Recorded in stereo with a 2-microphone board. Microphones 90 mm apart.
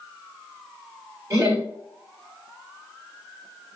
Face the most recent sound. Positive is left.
turn(degrees=-30)  # may be behind; listen again after turning